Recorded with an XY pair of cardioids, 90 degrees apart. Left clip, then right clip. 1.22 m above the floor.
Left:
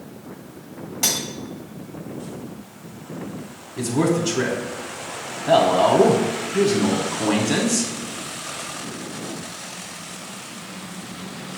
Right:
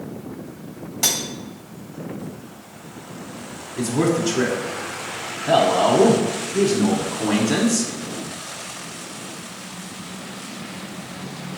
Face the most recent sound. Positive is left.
turn(degrees=5)